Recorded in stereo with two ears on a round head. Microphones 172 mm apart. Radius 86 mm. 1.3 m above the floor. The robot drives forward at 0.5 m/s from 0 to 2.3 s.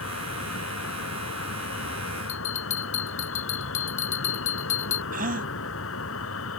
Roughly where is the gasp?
Right.